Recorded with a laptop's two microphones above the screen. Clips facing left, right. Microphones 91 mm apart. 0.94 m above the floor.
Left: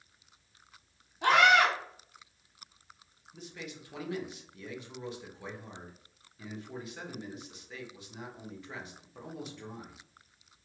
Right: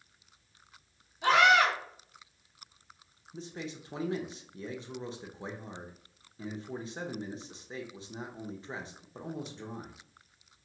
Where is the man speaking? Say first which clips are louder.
Right 4 dB; 30° right (ahead or behind), 0.5 m.